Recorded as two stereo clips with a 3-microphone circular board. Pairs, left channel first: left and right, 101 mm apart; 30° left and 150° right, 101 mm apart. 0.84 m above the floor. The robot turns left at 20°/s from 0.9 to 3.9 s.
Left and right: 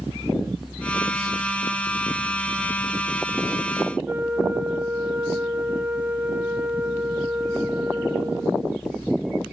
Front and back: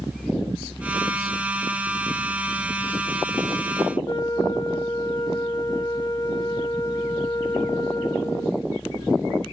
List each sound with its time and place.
4.0 s a flute: 20° right, 0.6 m